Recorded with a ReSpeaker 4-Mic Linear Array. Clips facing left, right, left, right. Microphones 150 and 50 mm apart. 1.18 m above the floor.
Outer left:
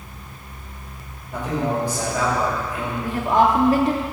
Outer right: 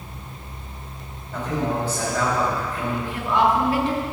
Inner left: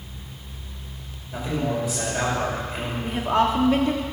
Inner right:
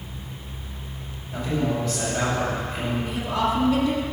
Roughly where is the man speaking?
Centre.